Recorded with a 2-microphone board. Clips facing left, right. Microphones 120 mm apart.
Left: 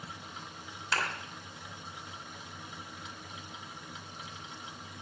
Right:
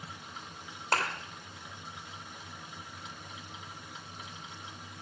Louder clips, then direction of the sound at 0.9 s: Right 3 dB; 50° right (ahead or behind).